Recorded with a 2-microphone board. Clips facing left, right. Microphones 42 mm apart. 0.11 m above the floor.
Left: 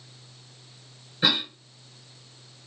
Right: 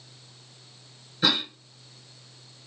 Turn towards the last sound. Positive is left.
turn(degrees=15)  # may be behind; listen again after turning